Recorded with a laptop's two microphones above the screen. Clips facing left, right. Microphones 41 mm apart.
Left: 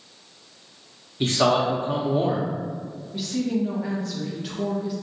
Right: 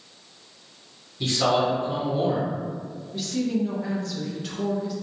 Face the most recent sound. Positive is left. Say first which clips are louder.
# even
turn(degrees=5)  # may be behind; listen again after turning